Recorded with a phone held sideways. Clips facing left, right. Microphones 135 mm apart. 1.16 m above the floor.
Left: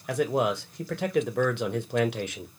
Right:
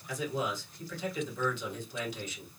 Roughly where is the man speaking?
Left.